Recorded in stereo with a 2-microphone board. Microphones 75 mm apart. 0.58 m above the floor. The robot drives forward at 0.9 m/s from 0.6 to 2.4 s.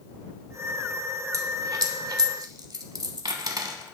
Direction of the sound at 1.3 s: 45° right (ahead or behind).